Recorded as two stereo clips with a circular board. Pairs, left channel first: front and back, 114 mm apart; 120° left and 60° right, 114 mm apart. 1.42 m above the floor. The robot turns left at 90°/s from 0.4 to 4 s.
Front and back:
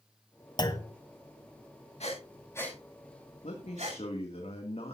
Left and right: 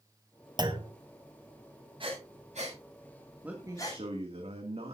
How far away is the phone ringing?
I don't hear a phone ringing.